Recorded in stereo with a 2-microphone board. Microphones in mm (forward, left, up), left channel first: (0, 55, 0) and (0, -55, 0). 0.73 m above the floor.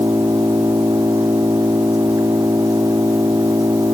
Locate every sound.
0.0 s an engine running: 30° right (ahead or behind)